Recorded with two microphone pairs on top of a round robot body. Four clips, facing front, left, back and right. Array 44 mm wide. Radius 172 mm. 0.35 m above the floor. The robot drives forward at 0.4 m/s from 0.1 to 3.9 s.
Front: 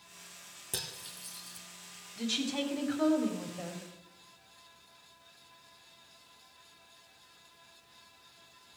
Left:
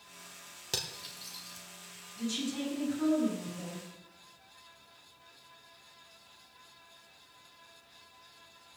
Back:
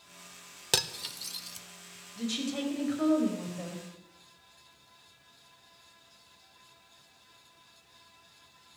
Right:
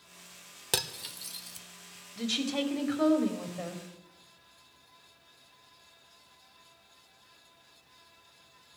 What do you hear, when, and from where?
0.7 s cutlery clinking: 145° right, 0.9 m; by 1.7 s 155° right, 1.2 m
2.2 s a woman speaking: 90° right, 3 m; by 3.8 s 100° right, 3 m